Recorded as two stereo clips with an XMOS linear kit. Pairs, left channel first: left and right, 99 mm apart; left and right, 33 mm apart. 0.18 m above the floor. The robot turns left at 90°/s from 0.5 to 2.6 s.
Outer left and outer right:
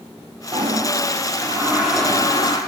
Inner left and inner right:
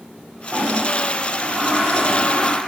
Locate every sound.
0.5 s a toilet flushing: 55° right, 4 m; by 2.6 s 120° left, 4 m